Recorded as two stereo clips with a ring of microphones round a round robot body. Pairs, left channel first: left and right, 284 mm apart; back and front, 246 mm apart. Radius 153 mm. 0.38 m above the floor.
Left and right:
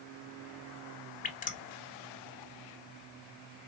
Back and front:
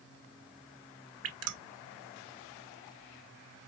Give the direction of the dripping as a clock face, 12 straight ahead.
11 o'clock.